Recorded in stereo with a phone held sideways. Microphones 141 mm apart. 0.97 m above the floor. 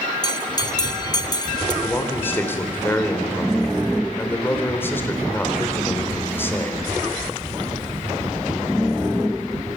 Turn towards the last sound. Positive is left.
turn(degrees=15)  # may be behind; listen again after turning